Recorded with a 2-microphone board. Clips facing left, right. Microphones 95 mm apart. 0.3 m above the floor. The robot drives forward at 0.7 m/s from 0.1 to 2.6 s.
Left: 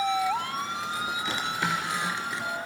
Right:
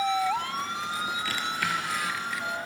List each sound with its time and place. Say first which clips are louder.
1.2 s a drawer: left 1 dB; 20° left (ahead or behind), 3.5 m; by 2.5 s 30° left (ahead or behind), 3 m